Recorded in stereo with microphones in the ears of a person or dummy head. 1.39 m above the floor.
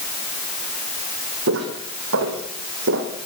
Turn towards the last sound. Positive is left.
turn(degrees=-65)  # may be behind; listen again after turning